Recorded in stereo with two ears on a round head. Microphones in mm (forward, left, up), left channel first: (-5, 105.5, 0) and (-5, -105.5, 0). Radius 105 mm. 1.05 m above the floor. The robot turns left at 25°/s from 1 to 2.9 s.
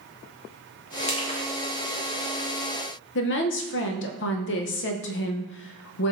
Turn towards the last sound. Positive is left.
turn(degrees=50)  # may be behind; listen again after turning